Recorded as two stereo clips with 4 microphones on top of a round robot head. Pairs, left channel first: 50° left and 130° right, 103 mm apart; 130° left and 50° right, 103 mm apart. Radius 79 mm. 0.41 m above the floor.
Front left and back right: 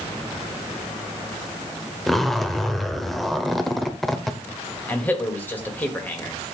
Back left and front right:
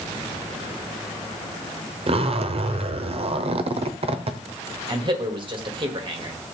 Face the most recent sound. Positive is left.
turn(degrees=-20)